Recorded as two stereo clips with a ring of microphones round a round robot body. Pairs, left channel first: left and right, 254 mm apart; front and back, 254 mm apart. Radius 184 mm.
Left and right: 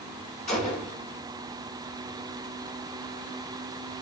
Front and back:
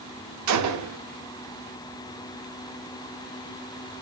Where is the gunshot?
165° left, 0.6 m.